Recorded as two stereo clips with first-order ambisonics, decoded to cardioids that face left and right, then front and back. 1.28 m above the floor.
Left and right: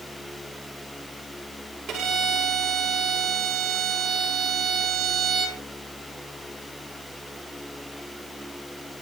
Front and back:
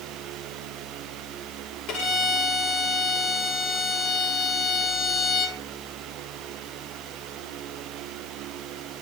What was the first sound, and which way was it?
A violin, 40° right.